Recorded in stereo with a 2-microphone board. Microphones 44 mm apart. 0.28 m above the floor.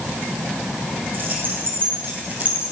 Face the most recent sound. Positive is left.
turn(degrees=-35)  # may be behind; listen again after turning